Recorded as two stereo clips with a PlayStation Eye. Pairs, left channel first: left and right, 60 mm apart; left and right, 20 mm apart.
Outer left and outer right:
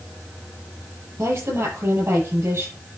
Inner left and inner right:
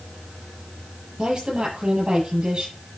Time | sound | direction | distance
1.2 | a woman speaking | 45° right (ahead or behind) | 8.5 m